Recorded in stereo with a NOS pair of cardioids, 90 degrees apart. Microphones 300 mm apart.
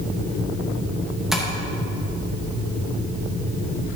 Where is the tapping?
Straight ahead, 2.5 m.